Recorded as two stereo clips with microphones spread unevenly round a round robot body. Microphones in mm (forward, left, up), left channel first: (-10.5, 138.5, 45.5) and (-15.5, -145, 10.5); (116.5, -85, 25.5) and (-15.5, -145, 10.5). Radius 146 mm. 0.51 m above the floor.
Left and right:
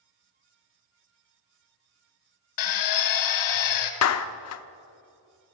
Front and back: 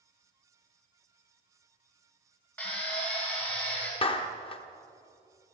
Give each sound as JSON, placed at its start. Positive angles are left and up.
{"t": 2.6, "sound": "a drill", "azimuth_deg": 110, "distance_m": 1.8}
{"t": 4.0, "sound": "a clap", "azimuth_deg": 80, "distance_m": 0.9}